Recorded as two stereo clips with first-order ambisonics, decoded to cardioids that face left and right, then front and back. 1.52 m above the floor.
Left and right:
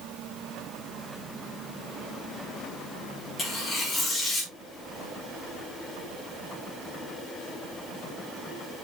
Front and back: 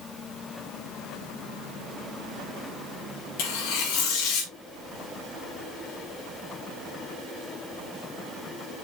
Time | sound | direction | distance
3.4 | tearing paper | 15° left | 5 m